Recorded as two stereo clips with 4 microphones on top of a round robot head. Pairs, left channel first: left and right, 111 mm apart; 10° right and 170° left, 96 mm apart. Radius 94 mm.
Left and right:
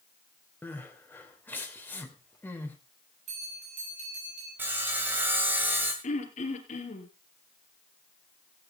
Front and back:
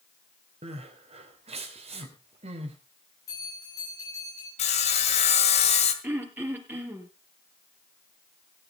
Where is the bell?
70° right, 8 m.